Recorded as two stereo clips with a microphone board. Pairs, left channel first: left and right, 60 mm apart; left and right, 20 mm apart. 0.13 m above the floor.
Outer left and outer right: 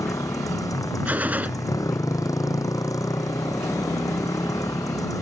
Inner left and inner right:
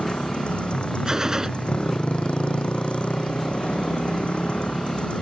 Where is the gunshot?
25° right (ahead or behind).